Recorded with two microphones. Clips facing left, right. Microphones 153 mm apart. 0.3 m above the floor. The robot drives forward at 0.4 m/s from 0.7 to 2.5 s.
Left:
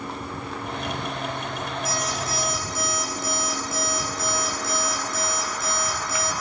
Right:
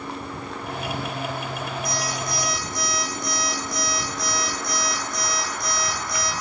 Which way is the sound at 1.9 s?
5° left (ahead or behind).